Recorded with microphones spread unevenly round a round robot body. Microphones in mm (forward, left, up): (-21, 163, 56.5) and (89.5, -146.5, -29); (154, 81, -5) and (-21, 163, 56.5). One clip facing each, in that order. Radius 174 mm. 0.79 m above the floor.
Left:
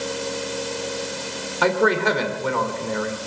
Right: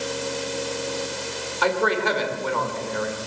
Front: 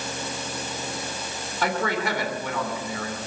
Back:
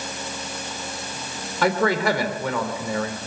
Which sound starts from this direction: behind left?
A man speaking, at 1.6 s.